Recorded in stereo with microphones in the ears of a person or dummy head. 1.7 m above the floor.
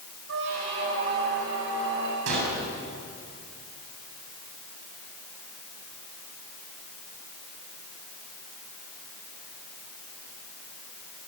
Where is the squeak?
75° right (ahead or behind), 6 m.